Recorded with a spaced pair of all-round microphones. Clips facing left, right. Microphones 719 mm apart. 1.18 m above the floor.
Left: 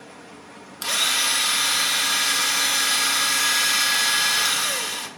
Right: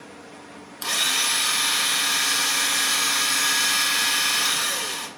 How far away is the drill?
About 0.6 m.